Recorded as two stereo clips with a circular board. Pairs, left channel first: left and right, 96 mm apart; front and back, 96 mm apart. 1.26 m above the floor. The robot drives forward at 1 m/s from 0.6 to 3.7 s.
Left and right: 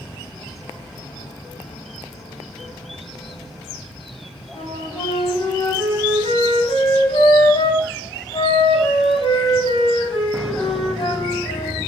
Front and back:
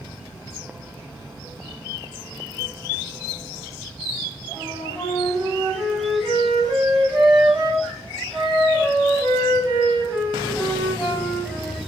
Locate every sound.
4.5 s a flute: 120° left, 2.5 m